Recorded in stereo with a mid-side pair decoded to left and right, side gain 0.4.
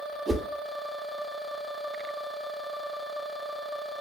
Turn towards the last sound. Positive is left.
turn(degrees=-25)